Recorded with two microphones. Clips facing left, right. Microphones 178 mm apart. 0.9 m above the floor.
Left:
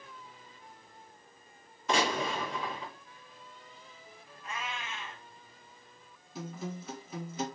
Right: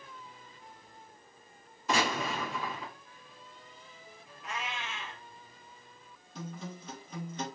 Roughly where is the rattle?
I don't hear a rattle.